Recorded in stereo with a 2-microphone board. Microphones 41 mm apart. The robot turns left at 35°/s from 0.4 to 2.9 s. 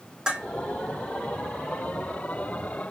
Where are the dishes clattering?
15° right (ahead or behind), 4 m; by 0.5 s 20° right (ahead or behind), 4 m.